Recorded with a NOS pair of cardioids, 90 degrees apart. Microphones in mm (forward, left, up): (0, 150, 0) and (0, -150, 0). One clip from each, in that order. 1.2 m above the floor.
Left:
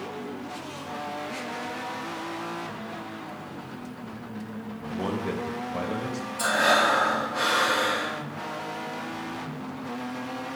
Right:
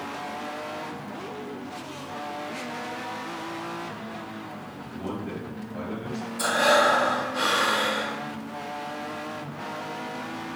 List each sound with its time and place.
4.9 s a man speaking: 50° left, 0.8 m
6.4 s breathing: 5° right, 0.5 m